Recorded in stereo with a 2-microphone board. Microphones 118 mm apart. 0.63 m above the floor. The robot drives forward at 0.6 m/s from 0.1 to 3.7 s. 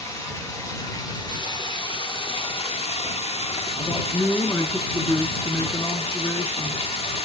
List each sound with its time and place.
0.0 s running water: 25° left (ahead or behind), 2 m; by 7.2 s 55° left (ahead or behind), 1.1 m
3.8 s a man speaking: 20° left (ahead or behind), 1.0 m